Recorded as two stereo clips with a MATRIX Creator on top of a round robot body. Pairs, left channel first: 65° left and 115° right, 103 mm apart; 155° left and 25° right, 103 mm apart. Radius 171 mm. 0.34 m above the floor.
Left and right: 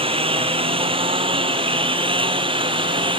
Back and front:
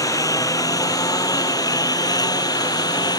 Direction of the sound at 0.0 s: 145° right.